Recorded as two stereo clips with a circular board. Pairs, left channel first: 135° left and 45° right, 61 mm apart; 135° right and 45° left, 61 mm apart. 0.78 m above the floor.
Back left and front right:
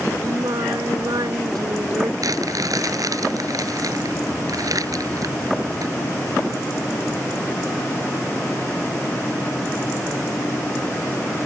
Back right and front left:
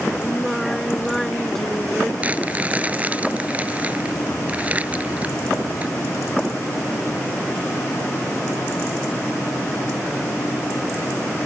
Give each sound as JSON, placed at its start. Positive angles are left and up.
{"t": 0.2, "sound": "singing", "azimuth_deg": -50}
{"t": 2.2, "sound": "crumpling", "azimuth_deg": -20}